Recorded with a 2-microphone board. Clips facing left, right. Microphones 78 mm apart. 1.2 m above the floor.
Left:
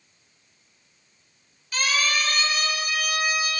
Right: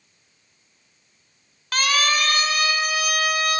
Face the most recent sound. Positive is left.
turn(degrees=-75)  # may be behind; listen again after turning